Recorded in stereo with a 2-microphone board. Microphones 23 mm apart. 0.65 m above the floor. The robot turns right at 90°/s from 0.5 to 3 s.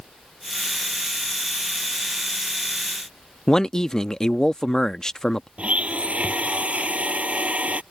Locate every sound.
3.5 s a man speaking: 25° left (ahead or behind)
5.6 s a blender: 65° right (ahead or behind)